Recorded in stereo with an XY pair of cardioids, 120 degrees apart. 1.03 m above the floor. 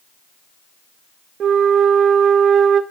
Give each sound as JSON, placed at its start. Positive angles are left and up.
{"t": 1.4, "sound": "a flute", "azimuth_deg": -50, "distance_m": 1.3}